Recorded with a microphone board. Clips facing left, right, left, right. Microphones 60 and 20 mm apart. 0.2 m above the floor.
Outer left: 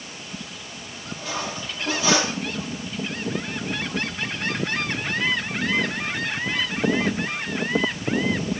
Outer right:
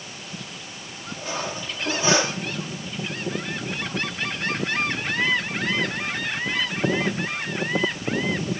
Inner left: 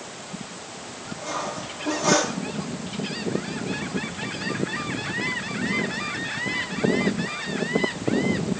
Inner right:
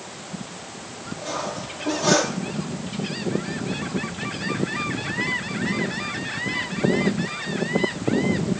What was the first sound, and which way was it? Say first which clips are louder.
Cutlery clinking: even, inner right 1 dB; 25° right (ahead or behind).